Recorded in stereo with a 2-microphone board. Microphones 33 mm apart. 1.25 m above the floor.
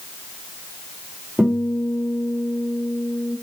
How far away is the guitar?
About 4 m.